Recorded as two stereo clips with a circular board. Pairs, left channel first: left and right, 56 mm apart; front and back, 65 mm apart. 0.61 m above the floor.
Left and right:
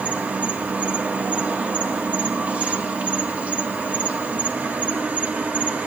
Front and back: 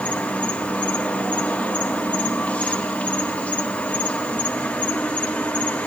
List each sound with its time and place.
0.0 s an insect: 55° right, 1.1 m